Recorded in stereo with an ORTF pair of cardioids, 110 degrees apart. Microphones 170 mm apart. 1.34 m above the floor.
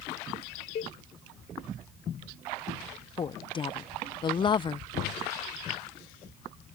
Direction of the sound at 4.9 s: 55° left.